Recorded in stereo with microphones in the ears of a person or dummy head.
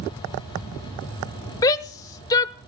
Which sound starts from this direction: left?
A shout, at 1.6 s.